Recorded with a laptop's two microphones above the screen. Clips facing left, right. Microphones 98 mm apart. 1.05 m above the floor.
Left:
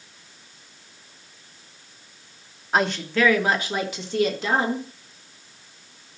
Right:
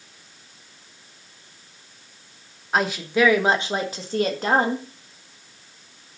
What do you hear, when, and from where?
2.7 s a woman speaking: centre (ahead or behind), 1.1 m; by 4.9 s 50° right (ahead or behind), 1.9 m